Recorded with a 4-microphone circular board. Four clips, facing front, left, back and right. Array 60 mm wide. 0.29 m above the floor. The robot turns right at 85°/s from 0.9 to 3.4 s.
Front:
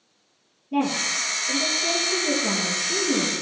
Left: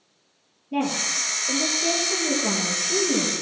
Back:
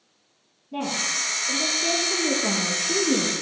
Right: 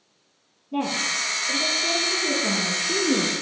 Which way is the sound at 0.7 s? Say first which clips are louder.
Even, front 4 dB; 45° left.